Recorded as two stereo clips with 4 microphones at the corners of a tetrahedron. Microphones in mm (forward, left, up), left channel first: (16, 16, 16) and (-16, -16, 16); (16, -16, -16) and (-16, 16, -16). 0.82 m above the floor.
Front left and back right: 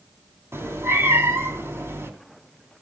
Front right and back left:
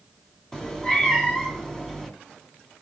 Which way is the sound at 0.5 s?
120° right.